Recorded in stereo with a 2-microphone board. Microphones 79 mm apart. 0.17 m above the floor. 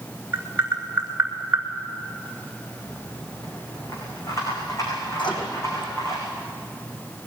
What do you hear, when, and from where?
0.3 s tapping: 25° right (ahead or behind), 4.5 m
2.8 s a rattle: 45° left (ahead or behind), 7 m
5.2 s a microwave: 80° left, 6.5 m